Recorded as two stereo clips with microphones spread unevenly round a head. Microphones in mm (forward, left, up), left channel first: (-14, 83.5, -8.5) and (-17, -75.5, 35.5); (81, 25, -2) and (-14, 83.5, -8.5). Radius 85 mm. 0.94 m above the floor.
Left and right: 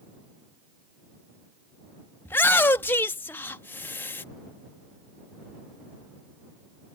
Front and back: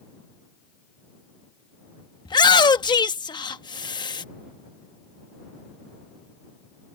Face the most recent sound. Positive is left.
turn(degrees=15)